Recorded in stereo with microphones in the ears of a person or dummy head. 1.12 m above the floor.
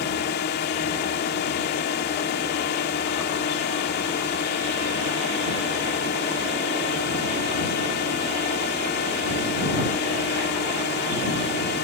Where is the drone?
50° left (ahead or behind).